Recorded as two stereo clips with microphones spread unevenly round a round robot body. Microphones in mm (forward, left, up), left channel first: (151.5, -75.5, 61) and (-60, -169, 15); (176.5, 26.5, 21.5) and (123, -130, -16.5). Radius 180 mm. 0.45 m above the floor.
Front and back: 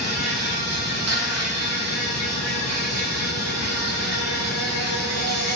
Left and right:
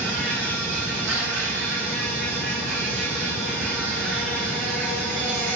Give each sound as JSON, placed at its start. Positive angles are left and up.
{"t": 0.0, "sound": "an insect", "azimuth_deg": -150, "distance_m": 3.5}